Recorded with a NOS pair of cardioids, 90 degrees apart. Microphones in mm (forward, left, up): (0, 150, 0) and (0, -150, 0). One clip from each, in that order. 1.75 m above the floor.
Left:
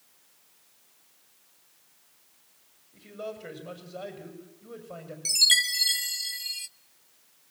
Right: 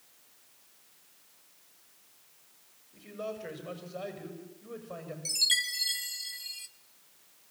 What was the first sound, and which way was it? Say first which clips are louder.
A man speaking: even; 10° left.